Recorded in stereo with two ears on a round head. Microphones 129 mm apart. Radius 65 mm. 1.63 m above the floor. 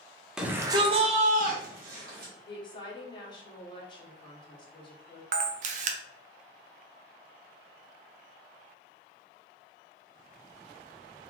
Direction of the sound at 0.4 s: 5° right (ahead or behind).